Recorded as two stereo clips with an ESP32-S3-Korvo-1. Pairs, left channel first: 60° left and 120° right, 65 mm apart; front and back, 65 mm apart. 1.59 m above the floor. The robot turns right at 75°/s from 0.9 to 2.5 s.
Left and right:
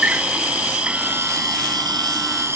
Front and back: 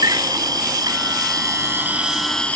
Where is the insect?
170° left; by 2.6 s 70° right.